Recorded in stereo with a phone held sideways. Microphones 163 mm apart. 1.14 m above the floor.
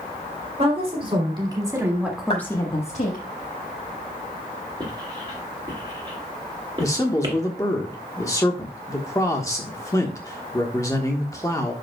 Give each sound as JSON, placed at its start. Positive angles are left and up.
{"t": 0.6, "sound": "a woman speaking", "side_deg": -40, "distance_m": 3.5}
{"t": 2.3, "sound": "a clap", "side_deg": 40, "distance_m": 4.0}
{"t": 4.8, "sound": "writing", "side_deg": -30, "distance_m": 2.0}
{"t": 6.8, "sound": "a man speaking", "side_deg": 20, "distance_m": 1.2}